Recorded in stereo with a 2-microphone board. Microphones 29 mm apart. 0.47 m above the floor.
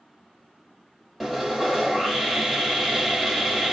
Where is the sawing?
5° right (ahead or behind), 1.4 m.